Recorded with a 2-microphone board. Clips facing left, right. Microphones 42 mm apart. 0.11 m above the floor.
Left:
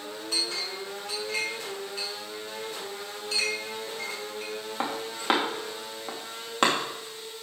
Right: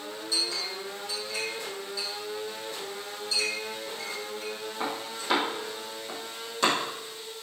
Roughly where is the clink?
Left.